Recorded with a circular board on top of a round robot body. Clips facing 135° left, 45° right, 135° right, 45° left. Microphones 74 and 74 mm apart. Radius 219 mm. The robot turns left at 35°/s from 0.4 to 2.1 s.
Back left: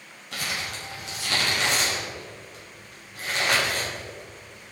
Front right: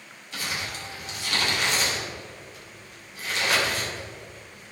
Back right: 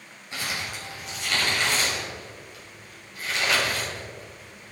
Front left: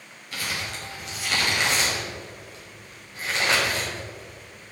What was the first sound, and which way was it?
Crumpling, 155° left.